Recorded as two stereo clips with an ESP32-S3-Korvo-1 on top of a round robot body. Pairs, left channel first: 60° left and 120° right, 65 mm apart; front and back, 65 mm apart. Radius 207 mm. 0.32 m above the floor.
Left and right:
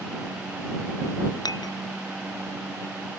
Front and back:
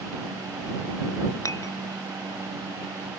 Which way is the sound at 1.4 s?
40° left.